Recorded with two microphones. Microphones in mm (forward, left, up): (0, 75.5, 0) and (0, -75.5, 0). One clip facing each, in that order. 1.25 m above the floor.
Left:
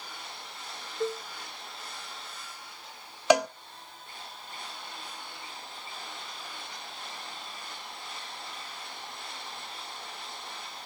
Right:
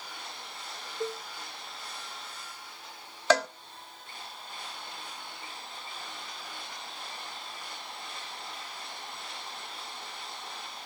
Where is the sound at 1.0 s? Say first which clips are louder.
Left 3 dB; 5° left (ahead or behind), 0.5 m.